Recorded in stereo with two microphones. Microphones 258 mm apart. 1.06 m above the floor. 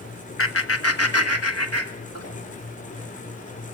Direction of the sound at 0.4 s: 55° left (ahead or behind).